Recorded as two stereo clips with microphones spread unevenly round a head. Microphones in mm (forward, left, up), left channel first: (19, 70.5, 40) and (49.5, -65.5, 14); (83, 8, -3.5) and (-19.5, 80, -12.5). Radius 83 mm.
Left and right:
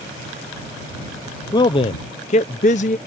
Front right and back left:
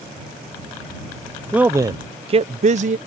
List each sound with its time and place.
1.5 s a man speaking: 60° left; by 3.0 s 135° left